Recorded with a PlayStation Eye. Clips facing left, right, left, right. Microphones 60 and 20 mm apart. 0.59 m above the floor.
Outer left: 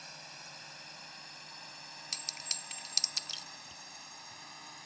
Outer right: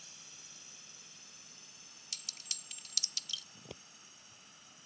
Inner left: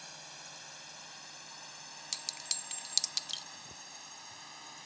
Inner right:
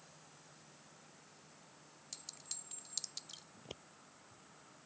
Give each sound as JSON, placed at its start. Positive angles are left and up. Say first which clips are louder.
{"t": 0.0, "sound": "a drone", "louder": "outer left 10 dB, inner left 13 dB", "side_deg": 55}
{"t": 2.1, "sound": "a clink", "louder": "outer left 5 dB, inner left 13 dB", "side_deg": 55}
{"t": 3.5, "sound": "scissors", "louder": "even, inner left 4 dB", "side_deg": -70}